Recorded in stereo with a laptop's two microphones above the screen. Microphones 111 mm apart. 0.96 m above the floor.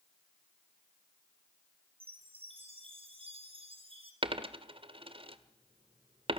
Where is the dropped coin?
55° right (ahead or behind), 1.6 m.